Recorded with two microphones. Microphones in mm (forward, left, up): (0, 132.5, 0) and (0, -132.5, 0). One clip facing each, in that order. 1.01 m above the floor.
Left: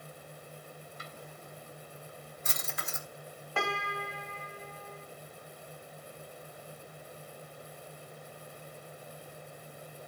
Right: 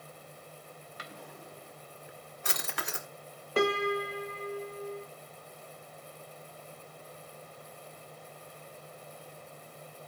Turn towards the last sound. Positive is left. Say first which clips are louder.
# right 10 dB
turn(degrees=-40)  # may be behind; listen again after turning